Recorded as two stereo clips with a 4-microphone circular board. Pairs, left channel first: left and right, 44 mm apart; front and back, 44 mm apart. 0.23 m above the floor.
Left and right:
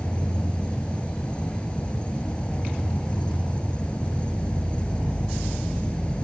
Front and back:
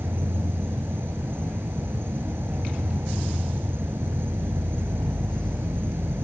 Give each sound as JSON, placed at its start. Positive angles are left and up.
{"t": 0.0, "sound": "an insect", "azimuth_deg": 155}